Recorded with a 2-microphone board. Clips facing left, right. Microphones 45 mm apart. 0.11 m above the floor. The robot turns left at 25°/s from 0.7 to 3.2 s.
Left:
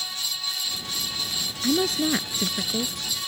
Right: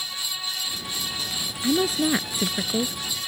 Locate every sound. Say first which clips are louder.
1.6 s a woman speaking: right 1 dB; 5° right; by 3.0 s 35° right